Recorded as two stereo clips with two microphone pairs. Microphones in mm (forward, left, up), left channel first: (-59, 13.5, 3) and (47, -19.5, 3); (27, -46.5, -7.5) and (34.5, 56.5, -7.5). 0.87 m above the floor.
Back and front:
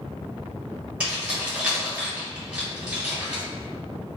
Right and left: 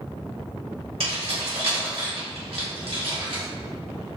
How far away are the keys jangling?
About 1.1 m.